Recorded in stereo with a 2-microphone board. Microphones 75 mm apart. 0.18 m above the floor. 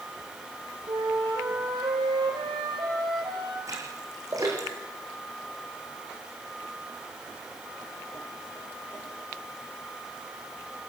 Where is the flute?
75° right (ahead or behind), 5.5 m.